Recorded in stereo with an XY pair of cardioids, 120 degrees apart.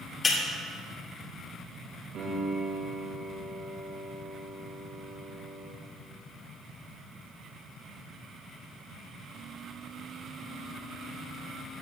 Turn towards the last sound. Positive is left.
turn(degrees=-65)